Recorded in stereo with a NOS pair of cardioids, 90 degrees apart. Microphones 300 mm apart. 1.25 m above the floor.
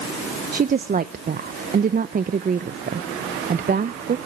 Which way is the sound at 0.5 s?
30° right.